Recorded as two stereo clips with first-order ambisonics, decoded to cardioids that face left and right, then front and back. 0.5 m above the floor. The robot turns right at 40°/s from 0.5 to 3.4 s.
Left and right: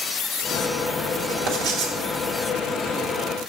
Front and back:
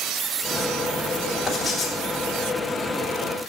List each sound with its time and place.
1.5 s writing: 90° right, 1.5 m; by 1.9 s 70° right, 1.5 m